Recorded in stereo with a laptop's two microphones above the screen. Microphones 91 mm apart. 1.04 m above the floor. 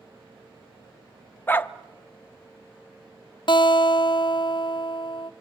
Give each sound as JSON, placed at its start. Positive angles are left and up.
{"t": 1.5, "sound": "a dog barking", "side_deg": 20, "distance_m": 0.5}
{"t": 3.5, "sound": "a guitar", "side_deg": 60, "distance_m": 0.5}